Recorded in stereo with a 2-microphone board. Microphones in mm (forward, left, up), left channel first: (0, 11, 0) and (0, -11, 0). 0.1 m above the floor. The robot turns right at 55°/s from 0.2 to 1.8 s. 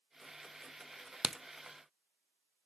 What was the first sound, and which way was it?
A crack, 65° right (ahead or behind).